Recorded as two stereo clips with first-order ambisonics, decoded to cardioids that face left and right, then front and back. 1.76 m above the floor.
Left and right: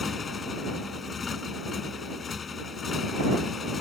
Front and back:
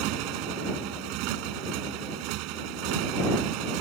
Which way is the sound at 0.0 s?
160° left.